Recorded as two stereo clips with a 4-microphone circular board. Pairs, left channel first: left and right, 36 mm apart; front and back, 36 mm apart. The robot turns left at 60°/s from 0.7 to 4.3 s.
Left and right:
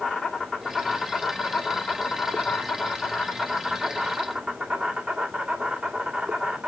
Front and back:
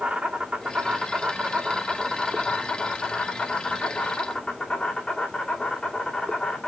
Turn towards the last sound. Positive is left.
turn(degrees=-60)